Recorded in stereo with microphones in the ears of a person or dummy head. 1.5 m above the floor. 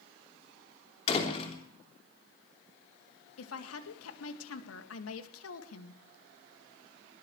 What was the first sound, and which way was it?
A door slam, 30° left (ahead or behind).